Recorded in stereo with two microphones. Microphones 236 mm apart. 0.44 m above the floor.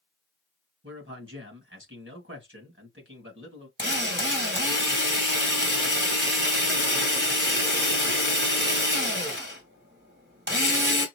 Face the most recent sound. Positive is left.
turn(degrees=-50)  # may be behind; listen again after turning